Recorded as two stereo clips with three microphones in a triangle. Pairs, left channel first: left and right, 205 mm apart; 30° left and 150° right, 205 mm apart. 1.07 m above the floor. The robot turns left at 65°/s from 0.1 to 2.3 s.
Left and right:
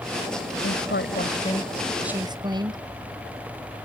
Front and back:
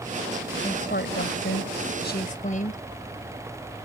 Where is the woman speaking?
85° left; by 2.8 s 20° right.